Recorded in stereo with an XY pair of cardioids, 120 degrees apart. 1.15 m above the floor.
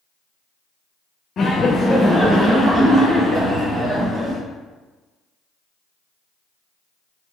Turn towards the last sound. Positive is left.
turn(degrees=-35)